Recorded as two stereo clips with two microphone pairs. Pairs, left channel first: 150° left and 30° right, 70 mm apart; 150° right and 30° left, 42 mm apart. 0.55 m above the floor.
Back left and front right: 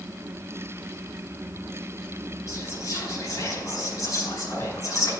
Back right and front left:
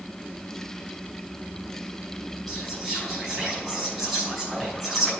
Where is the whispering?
120° left, 5 m.